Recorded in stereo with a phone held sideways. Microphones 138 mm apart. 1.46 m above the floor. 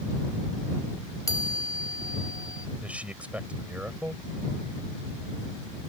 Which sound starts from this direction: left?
A chime, at 1.3 s.